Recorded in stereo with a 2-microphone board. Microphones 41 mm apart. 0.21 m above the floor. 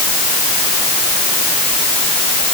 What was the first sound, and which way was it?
Only background noise.